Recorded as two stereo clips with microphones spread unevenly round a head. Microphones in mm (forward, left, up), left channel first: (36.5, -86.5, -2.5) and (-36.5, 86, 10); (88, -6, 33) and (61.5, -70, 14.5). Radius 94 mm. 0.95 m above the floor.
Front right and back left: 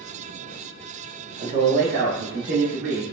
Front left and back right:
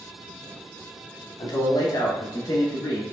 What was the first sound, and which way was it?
A man speaking, 65° left.